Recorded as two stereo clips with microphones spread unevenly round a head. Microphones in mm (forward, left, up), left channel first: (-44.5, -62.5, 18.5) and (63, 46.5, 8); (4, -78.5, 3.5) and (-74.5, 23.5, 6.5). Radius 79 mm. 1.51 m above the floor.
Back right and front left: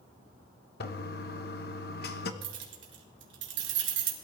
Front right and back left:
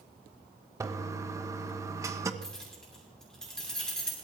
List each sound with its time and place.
0.8 s a toilet flushing: 165° right, 1.2 m
2.4 s keys jangling: 35° left, 3 m